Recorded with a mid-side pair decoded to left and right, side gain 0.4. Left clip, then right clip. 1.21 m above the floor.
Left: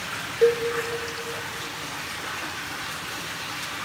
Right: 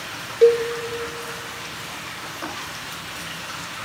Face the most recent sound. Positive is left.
turn(degrees=-35)